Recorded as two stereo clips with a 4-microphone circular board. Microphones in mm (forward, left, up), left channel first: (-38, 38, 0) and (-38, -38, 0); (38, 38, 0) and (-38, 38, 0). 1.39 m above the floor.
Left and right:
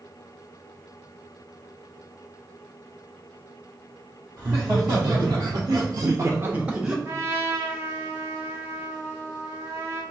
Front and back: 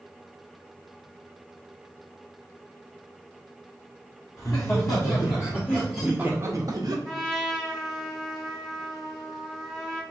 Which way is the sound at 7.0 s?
90° right.